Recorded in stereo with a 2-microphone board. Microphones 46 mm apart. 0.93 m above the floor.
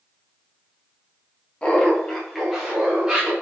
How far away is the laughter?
About 1.0 m.